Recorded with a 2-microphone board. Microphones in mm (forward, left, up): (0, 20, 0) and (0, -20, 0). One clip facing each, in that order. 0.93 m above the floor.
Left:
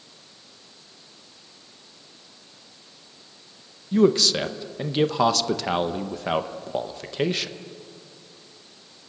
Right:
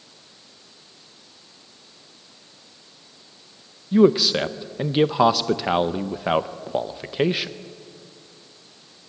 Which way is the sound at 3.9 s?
15° right (ahead or behind).